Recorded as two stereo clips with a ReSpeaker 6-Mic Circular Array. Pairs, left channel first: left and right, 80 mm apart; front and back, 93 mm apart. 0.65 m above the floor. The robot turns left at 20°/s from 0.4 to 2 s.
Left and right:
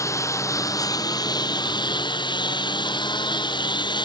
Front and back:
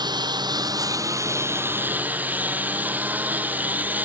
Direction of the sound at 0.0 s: 140° left.